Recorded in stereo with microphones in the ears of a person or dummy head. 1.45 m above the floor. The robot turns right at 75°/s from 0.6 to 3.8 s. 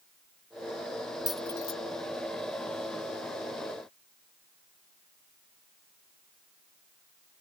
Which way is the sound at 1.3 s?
5° right (ahead or behind).